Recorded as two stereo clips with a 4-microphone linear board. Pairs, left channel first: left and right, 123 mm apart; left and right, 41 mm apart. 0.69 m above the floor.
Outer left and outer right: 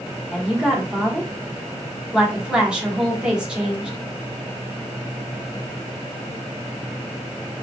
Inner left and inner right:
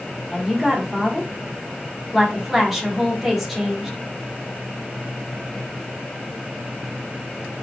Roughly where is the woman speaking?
Centre.